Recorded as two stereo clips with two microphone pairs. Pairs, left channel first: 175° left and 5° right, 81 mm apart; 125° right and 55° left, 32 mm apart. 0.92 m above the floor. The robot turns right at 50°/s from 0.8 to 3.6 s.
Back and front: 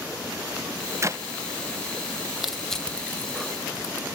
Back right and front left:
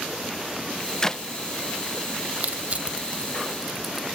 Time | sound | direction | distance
1.0 | a clap | 60° right | 0.6 m
2.4 | crushing | 75° left | 1.0 m